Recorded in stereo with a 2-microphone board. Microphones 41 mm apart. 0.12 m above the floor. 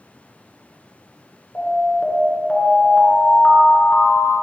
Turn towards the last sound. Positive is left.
turn(degrees=25)  # may be behind; listen again after turning